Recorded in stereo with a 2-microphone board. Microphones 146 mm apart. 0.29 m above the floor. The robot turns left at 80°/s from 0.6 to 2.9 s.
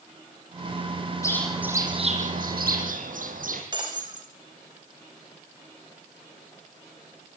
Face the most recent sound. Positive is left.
turn(degrees=-30)  # may be behind; listen again after turning